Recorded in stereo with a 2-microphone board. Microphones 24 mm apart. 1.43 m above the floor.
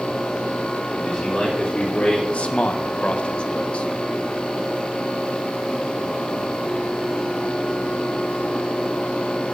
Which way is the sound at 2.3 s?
60° left (ahead or behind).